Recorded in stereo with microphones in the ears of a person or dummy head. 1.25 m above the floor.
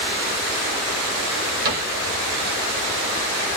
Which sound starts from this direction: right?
A cupboard door, at 1.6 s.